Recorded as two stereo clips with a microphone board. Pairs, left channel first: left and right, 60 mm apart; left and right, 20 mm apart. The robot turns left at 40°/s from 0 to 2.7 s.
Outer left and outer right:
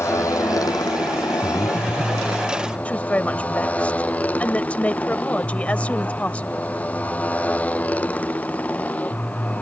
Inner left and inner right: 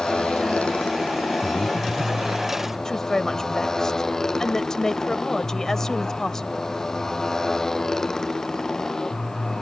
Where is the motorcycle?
130° left; by 9.6 s 25° left.